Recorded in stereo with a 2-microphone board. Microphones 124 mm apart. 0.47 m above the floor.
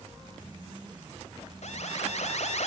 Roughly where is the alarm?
Left.